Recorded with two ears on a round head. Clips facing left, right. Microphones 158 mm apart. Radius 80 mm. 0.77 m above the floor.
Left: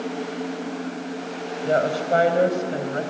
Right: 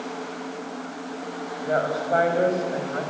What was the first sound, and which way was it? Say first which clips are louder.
A woman speaking: left 3 dB; 35° left (ahead or behind).